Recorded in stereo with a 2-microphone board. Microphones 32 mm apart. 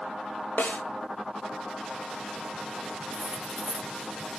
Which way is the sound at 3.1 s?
35° right (ahead or behind).